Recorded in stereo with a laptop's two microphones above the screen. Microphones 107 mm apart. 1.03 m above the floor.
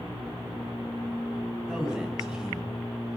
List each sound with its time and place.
1.7 s a man speaking: 5° right (ahead or behind), 8.5 m